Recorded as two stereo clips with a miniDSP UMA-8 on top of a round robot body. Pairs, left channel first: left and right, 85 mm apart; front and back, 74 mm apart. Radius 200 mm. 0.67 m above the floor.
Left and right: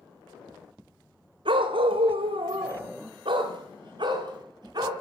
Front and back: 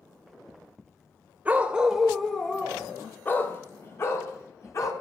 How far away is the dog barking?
About 1.4 m.